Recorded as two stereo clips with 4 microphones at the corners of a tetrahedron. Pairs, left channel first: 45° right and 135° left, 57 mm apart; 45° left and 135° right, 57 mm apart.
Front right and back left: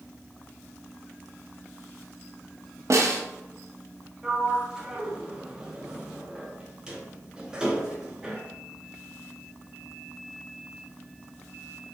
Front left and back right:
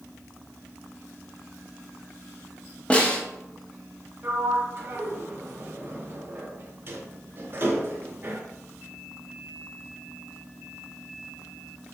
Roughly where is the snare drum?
Behind left.